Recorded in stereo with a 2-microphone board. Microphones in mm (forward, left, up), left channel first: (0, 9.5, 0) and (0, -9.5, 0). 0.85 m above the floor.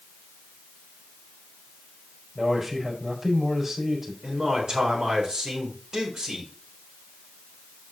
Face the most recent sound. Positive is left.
turn(degrees=-35)  # may be behind; listen again after turning